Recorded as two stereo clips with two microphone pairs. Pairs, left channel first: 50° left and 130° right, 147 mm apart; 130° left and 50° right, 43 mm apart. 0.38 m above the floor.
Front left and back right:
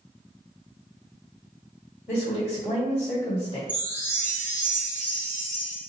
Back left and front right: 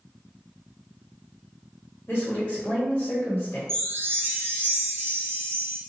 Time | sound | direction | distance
2.1 | a woman speaking | 95° left | 1.3 m
3.7 | a chime | 30° right | 1.0 m